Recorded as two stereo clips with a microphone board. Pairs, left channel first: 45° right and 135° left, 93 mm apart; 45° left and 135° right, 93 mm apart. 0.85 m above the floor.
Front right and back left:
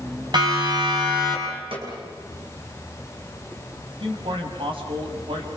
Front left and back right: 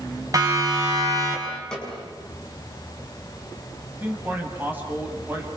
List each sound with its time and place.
0.3 s a siren: 175° left, 7 m; by 1.6 s 170° left, 7 m
1.7 s a snare drum: 130° left, 7.5 m
4.0 s a man speaking: 155° left, 5 m